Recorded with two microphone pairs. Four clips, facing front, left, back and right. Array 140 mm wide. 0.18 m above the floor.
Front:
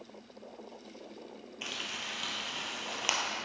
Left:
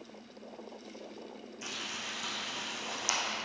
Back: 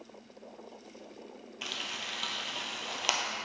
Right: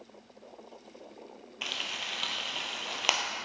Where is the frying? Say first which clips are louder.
Right 4 dB, back 1 dB; 105° right, 0.7 m.